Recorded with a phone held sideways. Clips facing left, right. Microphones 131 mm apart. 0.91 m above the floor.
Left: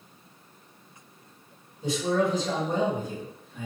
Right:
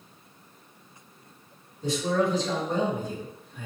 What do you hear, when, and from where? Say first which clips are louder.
1.8 s a man speaking: even; 15° left (ahead or behind), 1.6 m